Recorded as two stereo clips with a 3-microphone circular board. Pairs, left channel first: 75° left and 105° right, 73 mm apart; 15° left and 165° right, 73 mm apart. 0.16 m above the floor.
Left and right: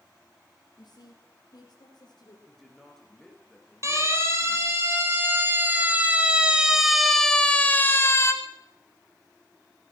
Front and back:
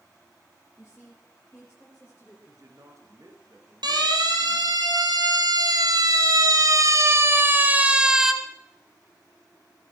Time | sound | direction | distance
0.8 | a woman speaking | 90° left | 3.5 m
2.5 | a man speaking | 160° left | 3 m
3.8 | a siren | 155° right | 4 m